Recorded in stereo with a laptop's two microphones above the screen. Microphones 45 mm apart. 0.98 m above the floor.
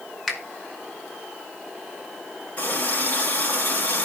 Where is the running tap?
35° left (ahead or behind), 4.5 m.